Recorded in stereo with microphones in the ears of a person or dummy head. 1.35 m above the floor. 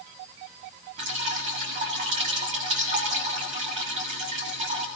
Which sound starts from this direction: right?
Dripping, at 1.0 s.